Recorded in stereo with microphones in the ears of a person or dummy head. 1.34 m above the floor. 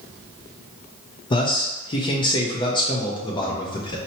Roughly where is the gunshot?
I don't hear a gunshot.